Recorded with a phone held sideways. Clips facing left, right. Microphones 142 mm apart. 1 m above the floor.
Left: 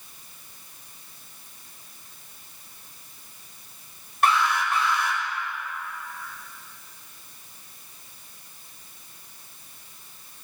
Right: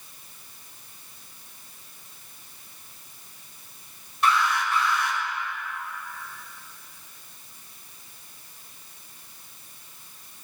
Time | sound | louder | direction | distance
4.2 | an alarm | left 1 dB | 60° left (ahead or behind) | 4 m